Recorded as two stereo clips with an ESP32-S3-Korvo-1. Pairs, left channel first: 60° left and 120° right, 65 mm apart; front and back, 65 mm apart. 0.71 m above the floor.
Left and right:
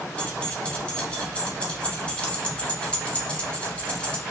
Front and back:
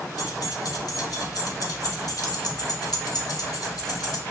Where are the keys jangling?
10° right, 0.7 m.